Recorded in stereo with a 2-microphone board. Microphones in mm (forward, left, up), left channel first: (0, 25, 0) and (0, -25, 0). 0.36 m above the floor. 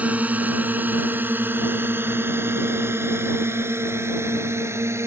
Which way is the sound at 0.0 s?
30° right (ahead or behind).